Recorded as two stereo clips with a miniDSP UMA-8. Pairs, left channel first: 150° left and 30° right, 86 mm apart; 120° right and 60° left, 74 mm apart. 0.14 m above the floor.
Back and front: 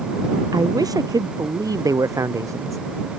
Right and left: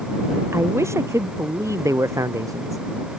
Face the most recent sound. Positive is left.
turn(degrees=20)